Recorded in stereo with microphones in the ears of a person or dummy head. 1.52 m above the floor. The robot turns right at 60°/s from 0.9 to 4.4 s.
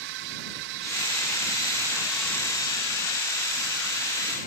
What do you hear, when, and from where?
0.0 s a drone: 80° right; by 4.5 s 130° left